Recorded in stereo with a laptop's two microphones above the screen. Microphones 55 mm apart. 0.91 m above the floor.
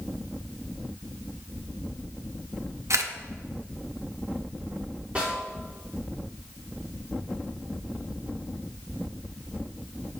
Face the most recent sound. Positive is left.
turn(degrees=-25)  # may be behind; listen again after turning